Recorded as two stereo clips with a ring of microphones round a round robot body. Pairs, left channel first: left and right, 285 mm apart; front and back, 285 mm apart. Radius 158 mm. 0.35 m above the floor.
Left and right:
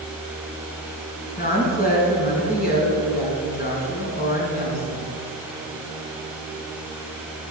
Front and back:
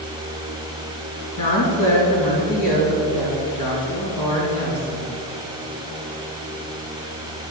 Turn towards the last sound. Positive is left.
turn(degrees=30)